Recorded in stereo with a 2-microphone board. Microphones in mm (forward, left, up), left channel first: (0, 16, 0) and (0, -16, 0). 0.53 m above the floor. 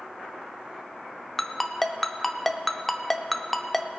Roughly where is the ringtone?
Centre.